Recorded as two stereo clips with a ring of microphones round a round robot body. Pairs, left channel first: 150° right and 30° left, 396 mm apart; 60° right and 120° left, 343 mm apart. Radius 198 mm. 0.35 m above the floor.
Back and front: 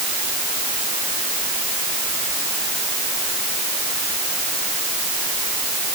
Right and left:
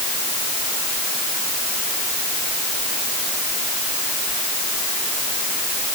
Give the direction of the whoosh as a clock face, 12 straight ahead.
I don't hear a whoosh.